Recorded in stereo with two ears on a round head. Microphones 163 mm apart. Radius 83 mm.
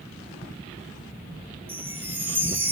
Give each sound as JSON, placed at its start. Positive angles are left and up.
{"t": 1.7, "sound": "a chime", "side_deg": -10, "distance_m": 1.2}